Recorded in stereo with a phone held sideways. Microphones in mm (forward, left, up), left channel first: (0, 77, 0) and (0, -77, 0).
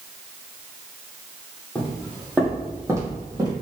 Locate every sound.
1.8 s footsteps: 5° left (ahead or behind), 1.9 m; by 3.5 s 30° right (ahead or behind), 2.5 m